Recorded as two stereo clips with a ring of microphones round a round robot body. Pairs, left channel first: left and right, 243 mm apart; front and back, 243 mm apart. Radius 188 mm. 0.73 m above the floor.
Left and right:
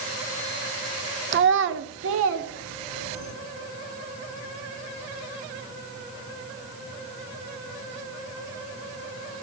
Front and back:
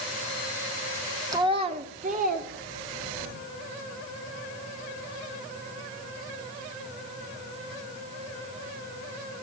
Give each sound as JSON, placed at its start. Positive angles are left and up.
{"t": 1.3, "sound": "a child speaking", "azimuth_deg": -110, "distance_m": 0.6}